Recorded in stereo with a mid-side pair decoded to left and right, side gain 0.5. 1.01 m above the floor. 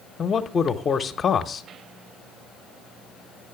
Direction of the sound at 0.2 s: 40° left.